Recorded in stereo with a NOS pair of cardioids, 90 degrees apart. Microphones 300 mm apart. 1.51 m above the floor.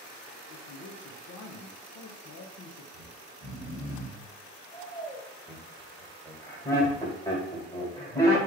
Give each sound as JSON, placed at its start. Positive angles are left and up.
{"t": 0.5, "sound": "a man speaking", "azimuth_deg": 60, "distance_m": 0.7}
{"t": 2.9, "sound": "snoring", "azimuth_deg": 10, "distance_m": 1.5}
{"t": 5.5, "sound": "laughter", "azimuth_deg": 10, "distance_m": 1.5}